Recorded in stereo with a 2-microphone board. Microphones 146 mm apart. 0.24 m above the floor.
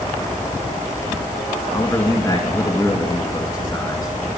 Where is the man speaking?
20° left (ahead or behind), 2 m.